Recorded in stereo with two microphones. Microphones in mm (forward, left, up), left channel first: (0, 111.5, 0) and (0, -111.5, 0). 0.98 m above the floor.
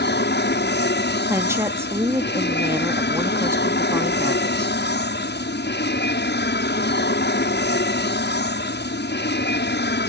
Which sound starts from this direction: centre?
A woman speaking, at 1.3 s.